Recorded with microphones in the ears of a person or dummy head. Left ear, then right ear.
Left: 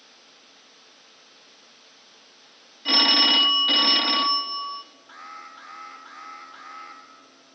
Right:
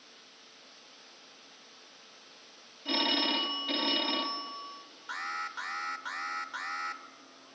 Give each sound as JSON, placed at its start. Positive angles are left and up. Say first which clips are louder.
{"t": 2.9, "sound": "a phone ringing", "louder": "left 11 dB", "side_deg": 65, "distance_m": 1.0}
{"t": 5.1, "sound": "an alarm", "louder": "right 6 dB", "side_deg": -50, "distance_m": 1.4}